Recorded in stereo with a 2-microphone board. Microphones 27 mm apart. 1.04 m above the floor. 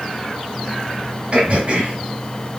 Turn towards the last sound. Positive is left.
turn(degrees=-50)  # may be behind; listen again after turning